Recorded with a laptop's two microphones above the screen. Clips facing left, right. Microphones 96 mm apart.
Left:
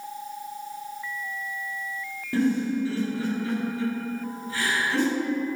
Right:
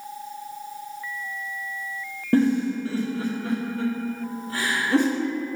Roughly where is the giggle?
Right.